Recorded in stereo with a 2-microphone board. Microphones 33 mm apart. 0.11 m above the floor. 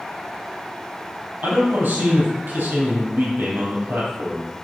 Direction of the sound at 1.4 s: 65° right (ahead or behind).